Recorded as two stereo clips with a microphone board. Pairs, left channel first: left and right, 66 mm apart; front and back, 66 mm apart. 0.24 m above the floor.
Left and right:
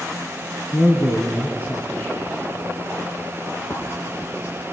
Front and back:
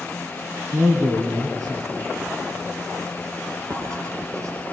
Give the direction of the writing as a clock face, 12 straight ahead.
7 o'clock.